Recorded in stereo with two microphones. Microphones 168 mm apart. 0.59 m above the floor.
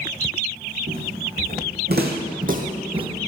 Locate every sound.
0.9 s footsteps: 65° right (ahead or behind), 3 m; by 3.1 s 30° right (ahead or behind), 1.5 m